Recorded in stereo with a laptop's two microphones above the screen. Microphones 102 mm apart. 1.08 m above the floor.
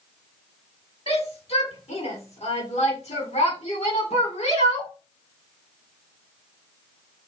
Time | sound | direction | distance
1.1 | a shout | 70° left (ahead or behind) | 4 m